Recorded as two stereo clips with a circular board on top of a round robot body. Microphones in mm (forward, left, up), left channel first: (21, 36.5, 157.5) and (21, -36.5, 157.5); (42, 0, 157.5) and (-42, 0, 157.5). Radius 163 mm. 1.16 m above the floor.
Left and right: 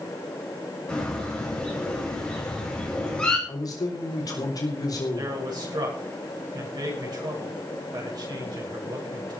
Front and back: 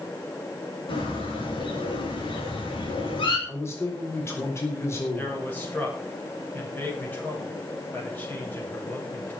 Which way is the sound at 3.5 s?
60° left.